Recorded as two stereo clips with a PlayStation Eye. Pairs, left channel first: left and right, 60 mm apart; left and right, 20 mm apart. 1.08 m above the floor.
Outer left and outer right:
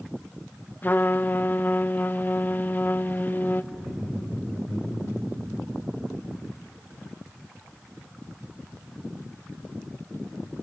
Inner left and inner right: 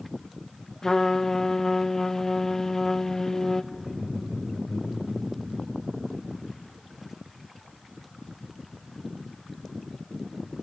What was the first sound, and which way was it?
A trumpet, 30° left (ahead or behind).